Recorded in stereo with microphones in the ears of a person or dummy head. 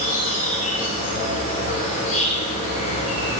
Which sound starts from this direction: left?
An insect, at 0.0 s.